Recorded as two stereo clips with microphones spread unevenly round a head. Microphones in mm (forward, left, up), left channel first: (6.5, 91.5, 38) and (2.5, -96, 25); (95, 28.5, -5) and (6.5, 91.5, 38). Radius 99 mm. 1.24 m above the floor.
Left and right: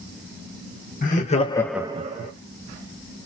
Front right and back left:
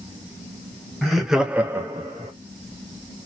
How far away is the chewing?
No chewing in this recording.